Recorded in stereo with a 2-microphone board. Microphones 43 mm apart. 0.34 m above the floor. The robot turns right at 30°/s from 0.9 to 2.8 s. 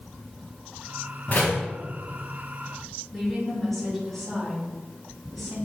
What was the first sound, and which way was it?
A door slam, 45° left (ahead or behind).